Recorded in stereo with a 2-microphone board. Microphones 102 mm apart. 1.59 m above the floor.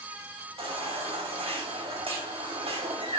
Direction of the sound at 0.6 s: 70° right (ahead or behind).